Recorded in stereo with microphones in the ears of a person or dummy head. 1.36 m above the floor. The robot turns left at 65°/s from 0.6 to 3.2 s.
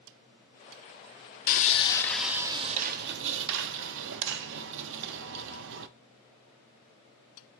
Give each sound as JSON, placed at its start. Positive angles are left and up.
{"t": 1.5, "sound": "sawing", "azimuth_deg": 45, "distance_m": 0.5}